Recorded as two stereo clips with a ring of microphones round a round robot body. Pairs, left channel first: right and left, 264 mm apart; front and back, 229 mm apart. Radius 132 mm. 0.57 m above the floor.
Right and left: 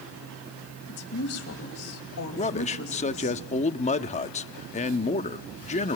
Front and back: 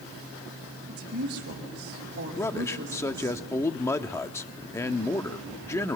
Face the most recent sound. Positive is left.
turn(degrees=-65)